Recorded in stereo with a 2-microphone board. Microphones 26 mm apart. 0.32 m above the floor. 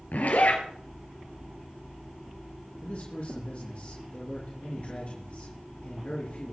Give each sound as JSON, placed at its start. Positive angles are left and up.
{"t": 0.1, "sound": "a zipper", "side_deg": 80, "distance_m": 3.0}
{"t": 2.8, "sound": "a man speaking", "side_deg": 50, "distance_m": 5.0}